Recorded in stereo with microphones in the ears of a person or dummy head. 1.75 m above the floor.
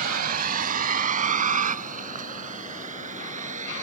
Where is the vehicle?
50° right (ahead or behind); by 3.8 s 40° right (ahead or behind).